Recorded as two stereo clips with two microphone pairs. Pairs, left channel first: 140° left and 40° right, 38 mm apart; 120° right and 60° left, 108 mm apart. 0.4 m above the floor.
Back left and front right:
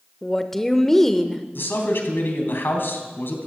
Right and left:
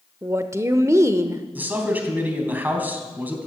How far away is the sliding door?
No sliding door in this recording.